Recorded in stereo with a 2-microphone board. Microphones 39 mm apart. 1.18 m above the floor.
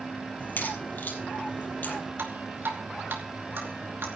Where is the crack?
55° left (ahead or behind), 5 m.